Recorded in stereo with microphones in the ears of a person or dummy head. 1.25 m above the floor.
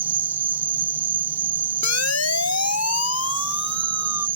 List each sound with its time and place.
0.0 s an insect: 5° right (ahead or behind)
1.8 s a siren: 85° left